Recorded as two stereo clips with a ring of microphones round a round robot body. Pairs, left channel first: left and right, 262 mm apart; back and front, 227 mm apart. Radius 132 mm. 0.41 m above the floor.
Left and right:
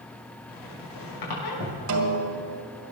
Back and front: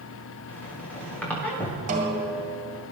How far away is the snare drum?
About 1.9 m.